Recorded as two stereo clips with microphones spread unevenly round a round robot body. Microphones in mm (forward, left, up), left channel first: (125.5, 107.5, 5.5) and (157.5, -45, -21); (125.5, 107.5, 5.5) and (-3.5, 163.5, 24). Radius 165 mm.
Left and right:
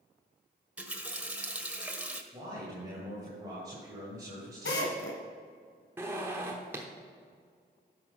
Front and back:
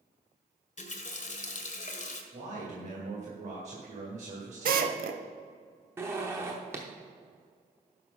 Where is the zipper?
130° right, 0.7 m.